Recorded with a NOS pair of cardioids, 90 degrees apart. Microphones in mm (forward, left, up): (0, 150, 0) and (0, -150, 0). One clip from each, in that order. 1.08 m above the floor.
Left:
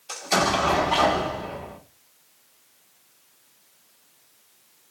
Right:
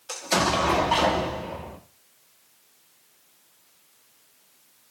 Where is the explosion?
10° right, 0.9 m.